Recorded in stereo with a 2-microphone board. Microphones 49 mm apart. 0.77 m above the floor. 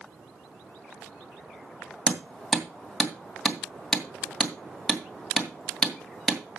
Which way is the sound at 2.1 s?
5° left (ahead or behind).